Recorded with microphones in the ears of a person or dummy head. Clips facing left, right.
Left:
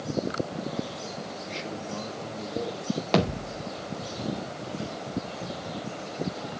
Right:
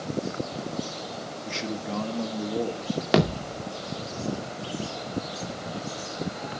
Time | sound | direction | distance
1.4 | a man speaking | 75° right (ahead or behind) | 2.5 m
3.1 | a thud | 15° right (ahead or behind) | 2 m